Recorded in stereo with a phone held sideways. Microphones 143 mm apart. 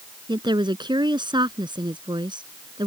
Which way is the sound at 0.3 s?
30° right (ahead or behind).